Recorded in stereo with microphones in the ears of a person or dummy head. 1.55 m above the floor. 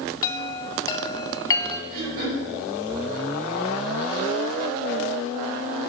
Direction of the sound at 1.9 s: 50° right (ahead or behind).